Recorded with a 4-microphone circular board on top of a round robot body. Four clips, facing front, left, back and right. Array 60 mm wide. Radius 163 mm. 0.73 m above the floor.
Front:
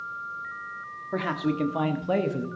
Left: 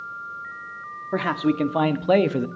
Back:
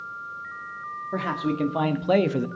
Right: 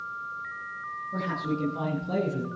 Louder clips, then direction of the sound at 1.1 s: Left 9 dB, even; 85° left.